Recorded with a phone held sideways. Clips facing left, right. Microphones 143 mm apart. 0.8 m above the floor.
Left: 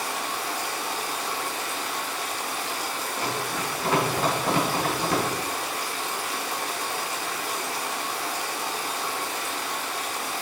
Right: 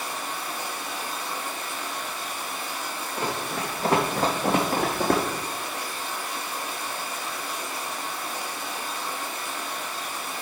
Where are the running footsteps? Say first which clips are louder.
Right 2 dB; 25° right (ahead or behind), 4.5 m; by 5.2 s 60° right (ahead or behind), 2.5 m.